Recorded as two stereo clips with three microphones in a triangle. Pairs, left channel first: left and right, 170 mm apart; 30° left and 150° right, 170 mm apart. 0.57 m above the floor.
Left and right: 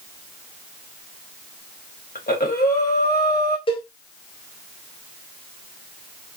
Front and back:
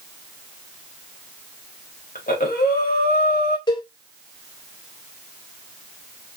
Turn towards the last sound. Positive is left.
turn(degrees=70)